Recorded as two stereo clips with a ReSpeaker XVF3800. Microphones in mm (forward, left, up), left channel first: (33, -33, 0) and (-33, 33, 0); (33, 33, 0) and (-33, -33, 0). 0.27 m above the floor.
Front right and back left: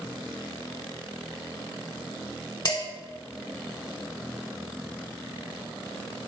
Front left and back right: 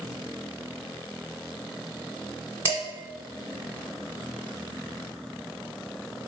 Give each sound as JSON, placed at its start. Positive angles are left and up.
{"t": 2.6, "sound": "dishes clattering", "azimuth_deg": -85, "distance_m": 1.5}